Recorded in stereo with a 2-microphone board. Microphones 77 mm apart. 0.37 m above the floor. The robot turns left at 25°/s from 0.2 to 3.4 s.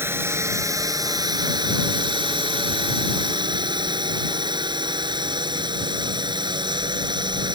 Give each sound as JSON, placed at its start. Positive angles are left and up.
{"t": 0.0, "sound": "a drone", "azimuth_deg": -30}